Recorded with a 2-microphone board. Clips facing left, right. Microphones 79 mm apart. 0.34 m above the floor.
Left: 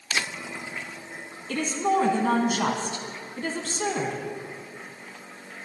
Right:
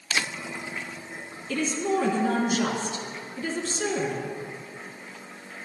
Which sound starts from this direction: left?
A woman speaking, at 1.5 s.